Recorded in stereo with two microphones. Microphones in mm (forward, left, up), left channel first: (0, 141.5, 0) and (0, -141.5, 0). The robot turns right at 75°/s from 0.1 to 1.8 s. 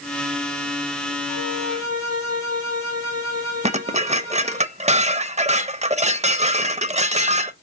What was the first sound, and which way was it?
A violin, 100° right.